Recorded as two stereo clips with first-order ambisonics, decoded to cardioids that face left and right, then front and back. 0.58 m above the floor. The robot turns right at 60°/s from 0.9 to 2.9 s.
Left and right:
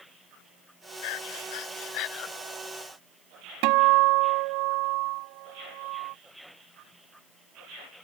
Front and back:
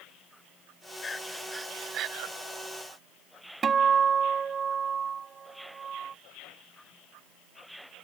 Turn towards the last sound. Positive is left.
turn(degrees=-110)